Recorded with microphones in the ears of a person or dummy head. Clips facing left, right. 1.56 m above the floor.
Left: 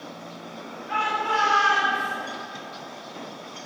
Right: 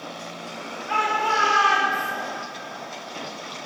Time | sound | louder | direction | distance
0.9 | a shout | right 2 dB | 85° right | 4 m